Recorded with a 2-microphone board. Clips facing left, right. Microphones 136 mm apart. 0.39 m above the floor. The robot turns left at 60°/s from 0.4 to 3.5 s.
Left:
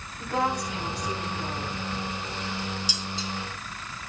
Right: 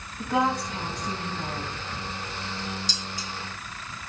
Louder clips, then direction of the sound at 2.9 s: Left 2 dB; 10° left (ahead or behind).